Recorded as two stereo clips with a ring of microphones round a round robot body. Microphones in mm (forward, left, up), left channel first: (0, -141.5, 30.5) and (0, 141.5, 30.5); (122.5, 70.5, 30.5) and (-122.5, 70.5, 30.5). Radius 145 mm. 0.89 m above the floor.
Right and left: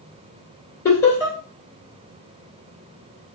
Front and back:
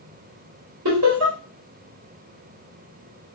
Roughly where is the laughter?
Behind right.